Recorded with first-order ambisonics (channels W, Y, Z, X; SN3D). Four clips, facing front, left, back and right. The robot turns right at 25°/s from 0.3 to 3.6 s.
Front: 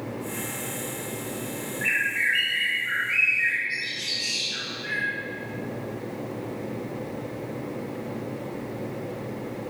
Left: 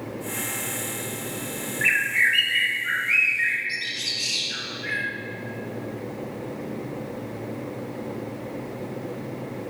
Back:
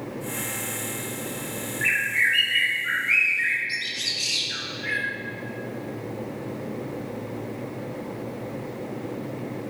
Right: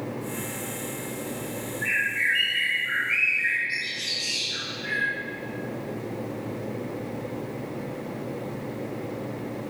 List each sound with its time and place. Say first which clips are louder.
1.8 s a bird: left 4 dB, back 2 dB; 105° left, 0.5 m; by 5.1 s 150° left, 0.5 m